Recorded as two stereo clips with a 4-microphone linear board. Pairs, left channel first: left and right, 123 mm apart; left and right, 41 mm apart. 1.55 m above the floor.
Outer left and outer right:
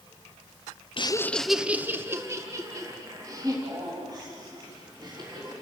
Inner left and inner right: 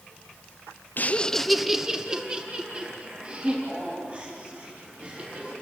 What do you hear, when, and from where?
1.0 s laughter: 45° left (ahead or behind), 0.5 m; by 5.5 s 35° right (ahead or behind), 5 m